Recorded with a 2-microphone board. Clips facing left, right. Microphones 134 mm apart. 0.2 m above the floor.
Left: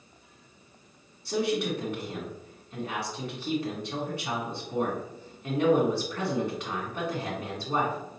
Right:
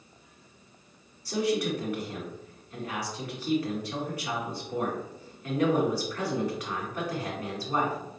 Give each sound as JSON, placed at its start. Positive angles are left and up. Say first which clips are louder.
{"t": 1.2, "sound": "a man speaking", "louder": "even", "side_deg": 25, "distance_m": 1.7}